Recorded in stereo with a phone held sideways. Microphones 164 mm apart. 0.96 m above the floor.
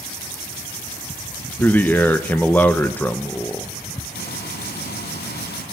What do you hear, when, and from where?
1.6 s a man speaking: 10° left (ahead or behind), 0.7 m
4.2 s frying: 75° left (ahead or behind), 2.5 m